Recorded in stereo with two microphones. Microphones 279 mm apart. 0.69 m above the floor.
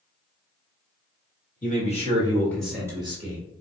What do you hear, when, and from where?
1.6 s a man speaking: 30° left (ahead or behind), 1.4 m; by 3.4 s 30° right (ahead or behind), 1.1 m